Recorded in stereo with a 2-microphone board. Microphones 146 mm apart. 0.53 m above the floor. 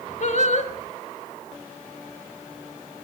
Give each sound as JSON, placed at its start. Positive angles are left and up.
{"t": 0.2, "sound": "singing", "side_deg": 55, "distance_m": 1.2}